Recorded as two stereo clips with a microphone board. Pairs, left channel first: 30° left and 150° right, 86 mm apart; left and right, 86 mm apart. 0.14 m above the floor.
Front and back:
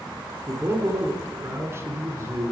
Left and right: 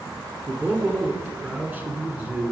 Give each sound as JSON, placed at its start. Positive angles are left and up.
{"t": 0.5, "sound": "a man speaking", "azimuth_deg": -145, "distance_m": 1.6}